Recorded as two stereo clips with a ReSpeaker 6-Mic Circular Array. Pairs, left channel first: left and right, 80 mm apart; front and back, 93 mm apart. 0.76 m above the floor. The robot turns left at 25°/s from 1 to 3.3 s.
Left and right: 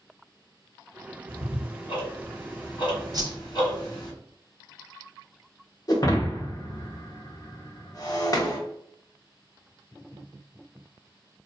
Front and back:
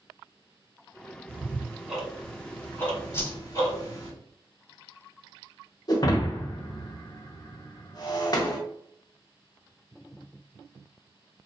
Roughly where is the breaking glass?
Ahead left.